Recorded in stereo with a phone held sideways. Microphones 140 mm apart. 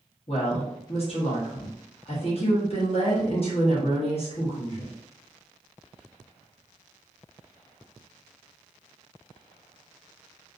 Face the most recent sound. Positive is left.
turn(degrees=45)  # may be behind; listen again after turning